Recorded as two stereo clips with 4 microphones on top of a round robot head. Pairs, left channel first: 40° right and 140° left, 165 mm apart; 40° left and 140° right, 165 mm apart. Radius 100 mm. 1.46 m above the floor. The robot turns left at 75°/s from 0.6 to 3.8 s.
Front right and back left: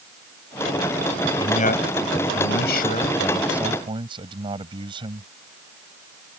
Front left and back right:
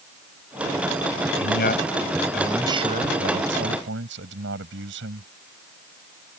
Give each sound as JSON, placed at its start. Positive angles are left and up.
{"t": 1.4, "sound": "a man speaking", "azimuth_deg": 25}